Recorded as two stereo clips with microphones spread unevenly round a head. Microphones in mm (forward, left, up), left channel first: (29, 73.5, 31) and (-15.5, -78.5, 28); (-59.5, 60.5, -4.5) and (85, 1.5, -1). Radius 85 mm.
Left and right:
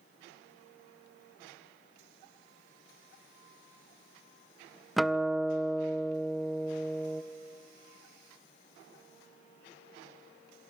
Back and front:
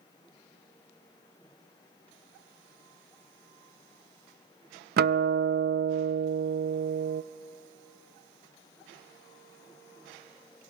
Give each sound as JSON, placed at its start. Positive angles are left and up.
{"t": 5.0, "sound": "a guitar", "azimuth_deg": -15, "distance_m": 0.5}